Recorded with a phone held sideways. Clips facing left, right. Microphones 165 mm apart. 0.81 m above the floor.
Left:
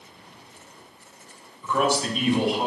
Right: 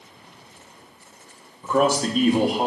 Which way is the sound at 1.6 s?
40° right (ahead or behind).